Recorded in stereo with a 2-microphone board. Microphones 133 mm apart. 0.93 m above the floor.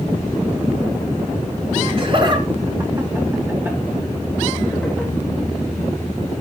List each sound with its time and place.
1.8 s laughter: 45° right (ahead or behind), 2.0 m; by 5.1 s centre (ahead or behind), 3 m